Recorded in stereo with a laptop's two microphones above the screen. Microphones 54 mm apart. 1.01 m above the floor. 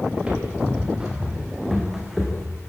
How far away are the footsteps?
About 6.5 m.